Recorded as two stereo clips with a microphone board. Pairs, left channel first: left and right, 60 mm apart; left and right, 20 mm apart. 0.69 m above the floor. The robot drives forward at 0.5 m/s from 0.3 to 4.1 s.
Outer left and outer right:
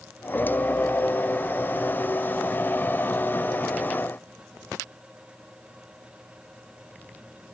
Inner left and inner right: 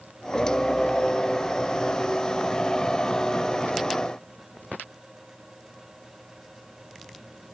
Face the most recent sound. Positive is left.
No sound to turn to.